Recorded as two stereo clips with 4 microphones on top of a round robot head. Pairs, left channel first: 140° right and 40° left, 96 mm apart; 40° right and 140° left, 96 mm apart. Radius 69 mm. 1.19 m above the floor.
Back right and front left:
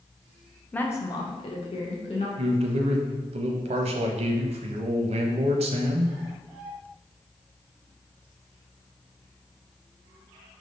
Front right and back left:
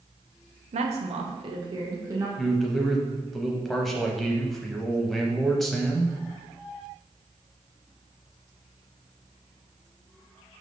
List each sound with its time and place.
0.7 s a woman speaking: 140° left, 0.7 m; by 2.3 s 155° right, 1.4 m
2.4 s a man speaking: 50° left, 0.8 m